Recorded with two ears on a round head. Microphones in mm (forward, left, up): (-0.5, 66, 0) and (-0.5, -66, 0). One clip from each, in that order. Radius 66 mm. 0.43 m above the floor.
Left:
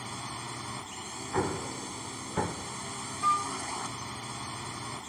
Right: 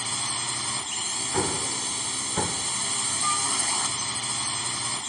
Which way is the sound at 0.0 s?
65° right (ahead or behind).